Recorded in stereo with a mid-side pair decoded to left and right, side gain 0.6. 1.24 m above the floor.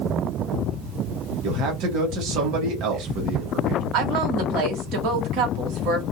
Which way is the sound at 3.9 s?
70° right.